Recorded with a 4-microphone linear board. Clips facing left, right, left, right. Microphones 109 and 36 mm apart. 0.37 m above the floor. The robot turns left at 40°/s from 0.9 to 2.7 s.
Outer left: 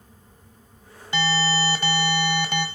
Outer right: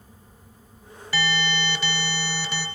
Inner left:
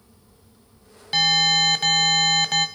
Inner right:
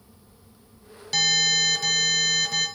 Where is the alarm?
155° left, 1.8 m; by 2.7 s 90° left, 1.8 m.